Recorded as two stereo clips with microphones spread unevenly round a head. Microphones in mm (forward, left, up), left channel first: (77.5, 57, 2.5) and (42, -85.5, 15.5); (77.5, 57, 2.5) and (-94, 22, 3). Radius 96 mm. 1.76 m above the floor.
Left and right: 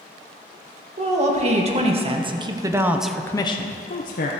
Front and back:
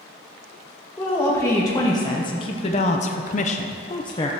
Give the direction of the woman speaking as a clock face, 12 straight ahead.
2 o'clock.